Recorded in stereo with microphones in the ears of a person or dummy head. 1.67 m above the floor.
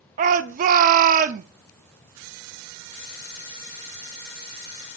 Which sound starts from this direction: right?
A shout, at 0.2 s.